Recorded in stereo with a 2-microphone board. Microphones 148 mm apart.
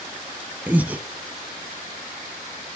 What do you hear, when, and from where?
0.7 s breathing: 10° right (ahead or behind), 0.6 m